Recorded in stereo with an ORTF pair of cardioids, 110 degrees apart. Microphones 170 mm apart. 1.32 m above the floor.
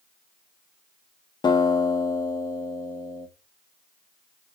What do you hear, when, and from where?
1.4 s a guitar: 25° left, 1.9 m